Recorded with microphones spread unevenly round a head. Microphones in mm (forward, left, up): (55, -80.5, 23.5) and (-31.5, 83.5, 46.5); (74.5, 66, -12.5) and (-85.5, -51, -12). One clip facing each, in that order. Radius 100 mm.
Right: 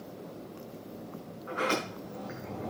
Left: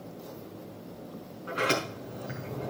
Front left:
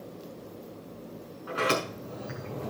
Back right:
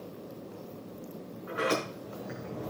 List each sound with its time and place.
1.5 s a sliding door: 70° left, 6 m